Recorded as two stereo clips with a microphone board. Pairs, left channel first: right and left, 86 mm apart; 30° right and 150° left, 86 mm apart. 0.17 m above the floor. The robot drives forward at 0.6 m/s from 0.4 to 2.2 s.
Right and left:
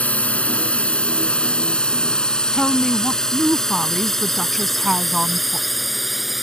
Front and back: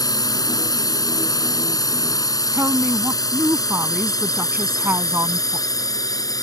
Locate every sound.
0.0 s a drone: 20° right; by 6.4 s straight ahead
2.5 s a woman speaking: straight behind